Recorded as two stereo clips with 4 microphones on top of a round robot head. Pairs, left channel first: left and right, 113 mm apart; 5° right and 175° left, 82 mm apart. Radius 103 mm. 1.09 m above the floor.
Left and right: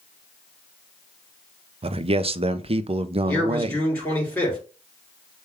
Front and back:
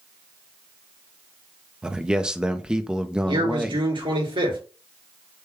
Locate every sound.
1.8 s a man speaking: 105° right, 0.5 m
3.3 s a man speaking: 170° left, 3.5 m